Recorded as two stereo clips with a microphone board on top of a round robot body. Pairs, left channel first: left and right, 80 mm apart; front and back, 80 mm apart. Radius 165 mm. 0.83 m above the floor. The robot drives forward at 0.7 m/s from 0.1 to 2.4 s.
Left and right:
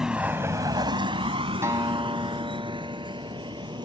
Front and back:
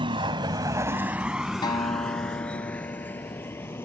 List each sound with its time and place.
0.0 s a vehicle: 175° right; by 3.9 s 60° right
1.6 s a guitar: 30° right; by 3.9 s 40° right